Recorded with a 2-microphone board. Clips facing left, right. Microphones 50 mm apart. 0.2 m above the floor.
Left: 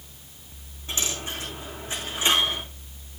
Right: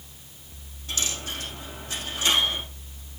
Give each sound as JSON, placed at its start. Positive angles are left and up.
{"t": 0.9, "sound": "a dropped coin", "side_deg": 25, "distance_m": 6.0}